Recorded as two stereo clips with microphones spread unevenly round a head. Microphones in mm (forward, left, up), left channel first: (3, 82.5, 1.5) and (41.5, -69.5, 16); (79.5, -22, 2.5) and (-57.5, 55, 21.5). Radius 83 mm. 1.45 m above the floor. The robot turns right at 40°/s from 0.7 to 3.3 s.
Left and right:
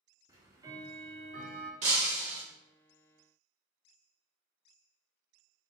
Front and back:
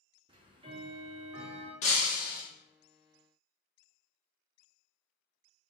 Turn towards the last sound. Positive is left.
turn(degrees=-15)